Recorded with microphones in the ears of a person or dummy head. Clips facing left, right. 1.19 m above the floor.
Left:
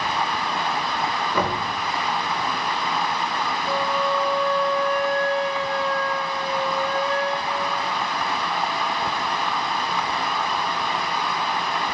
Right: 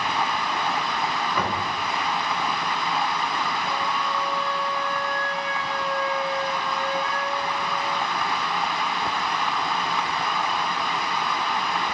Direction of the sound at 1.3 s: 85° left.